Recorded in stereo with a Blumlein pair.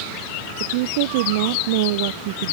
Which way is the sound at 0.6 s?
50° right.